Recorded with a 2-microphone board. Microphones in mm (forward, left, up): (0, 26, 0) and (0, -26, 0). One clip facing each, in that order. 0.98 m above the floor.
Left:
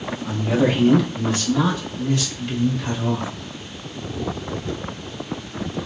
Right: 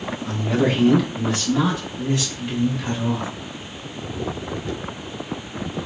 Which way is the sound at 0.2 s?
10° left (ahead or behind).